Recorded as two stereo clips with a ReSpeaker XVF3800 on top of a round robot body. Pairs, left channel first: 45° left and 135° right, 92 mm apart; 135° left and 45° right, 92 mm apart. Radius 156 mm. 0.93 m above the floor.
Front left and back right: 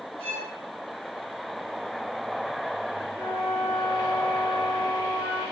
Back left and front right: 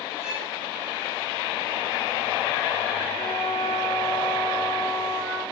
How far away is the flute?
About 2.5 m.